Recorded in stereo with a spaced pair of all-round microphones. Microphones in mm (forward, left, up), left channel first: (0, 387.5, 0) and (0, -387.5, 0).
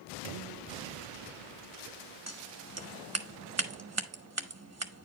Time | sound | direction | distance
2.3 | scissors | 20° right (ahead or behind) | 0.9 m